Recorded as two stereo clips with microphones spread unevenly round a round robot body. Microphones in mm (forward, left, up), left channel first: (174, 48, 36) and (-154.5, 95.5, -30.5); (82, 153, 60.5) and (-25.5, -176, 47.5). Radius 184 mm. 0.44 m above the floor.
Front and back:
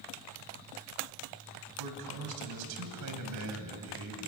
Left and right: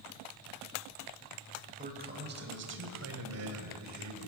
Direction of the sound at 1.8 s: 175° right.